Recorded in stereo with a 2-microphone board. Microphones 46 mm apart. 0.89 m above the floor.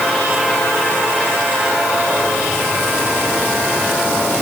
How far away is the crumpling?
I don't hear crumpling.